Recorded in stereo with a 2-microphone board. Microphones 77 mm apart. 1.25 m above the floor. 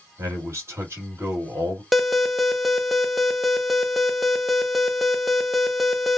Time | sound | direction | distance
0.2 | a man speaking | 40° right (ahead or behind) | 2.5 m
1.9 | an alarm | centre (ahead or behind) | 0.8 m